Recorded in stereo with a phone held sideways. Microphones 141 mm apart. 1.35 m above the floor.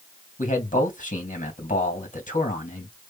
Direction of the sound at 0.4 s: 65° left (ahead or behind).